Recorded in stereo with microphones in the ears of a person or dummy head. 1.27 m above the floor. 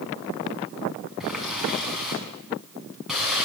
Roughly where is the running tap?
Centre.